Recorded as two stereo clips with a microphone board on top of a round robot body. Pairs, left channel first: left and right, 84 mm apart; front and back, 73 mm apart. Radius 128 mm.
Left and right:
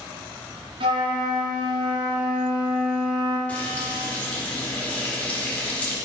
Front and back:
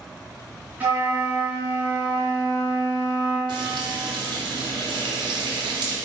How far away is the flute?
About 1.1 m.